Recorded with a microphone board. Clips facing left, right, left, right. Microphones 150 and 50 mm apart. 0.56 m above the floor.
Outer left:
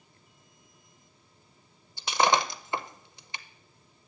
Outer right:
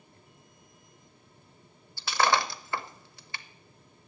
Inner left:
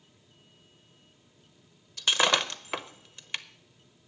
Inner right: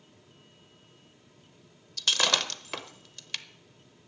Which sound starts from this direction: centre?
Breaking glass, at 2.0 s.